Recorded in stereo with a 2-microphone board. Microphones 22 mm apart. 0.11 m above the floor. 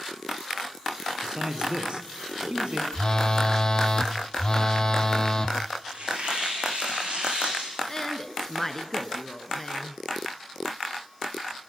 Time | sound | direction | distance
1.2 | a man speaking | 45° right (ahead or behind) | 3 m
2.9 | a phone buzzing | 40° left (ahead or behind) | 1.1 m
5.9 | tearing paper | 65° right (ahead or behind) | 5 m
7.9 | a woman speaking | 25° left (ahead or behind) | 1.4 m